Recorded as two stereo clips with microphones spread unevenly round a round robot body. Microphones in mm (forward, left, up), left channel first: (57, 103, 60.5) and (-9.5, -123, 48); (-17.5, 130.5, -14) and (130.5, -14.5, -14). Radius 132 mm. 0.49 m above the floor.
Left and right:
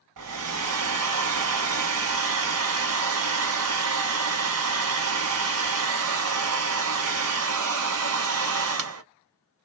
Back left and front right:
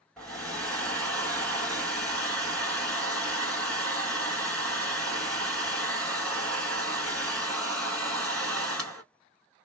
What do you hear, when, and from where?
0.2 s a hair dryer: 140° right, 0.7 m